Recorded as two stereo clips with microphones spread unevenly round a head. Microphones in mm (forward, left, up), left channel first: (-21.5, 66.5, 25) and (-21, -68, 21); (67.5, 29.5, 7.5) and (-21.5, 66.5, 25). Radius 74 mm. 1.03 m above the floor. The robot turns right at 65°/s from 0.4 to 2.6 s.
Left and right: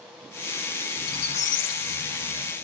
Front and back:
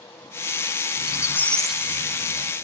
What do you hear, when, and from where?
1.0 s a squeak: 20° left, 0.6 m; by 2.5 s 125° left, 0.6 m